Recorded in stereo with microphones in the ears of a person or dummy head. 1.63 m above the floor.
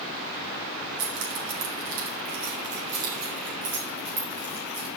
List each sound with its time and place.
1.0 s keys jangling: 65° right (ahead or behind), 3.5 m; by 4.9 s 55° right (ahead or behind), 5.5 m